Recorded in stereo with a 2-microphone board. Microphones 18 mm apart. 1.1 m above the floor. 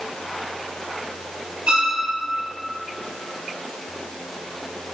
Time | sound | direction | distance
1.7 | a violin | 65° right (ahead or behind) | 3 m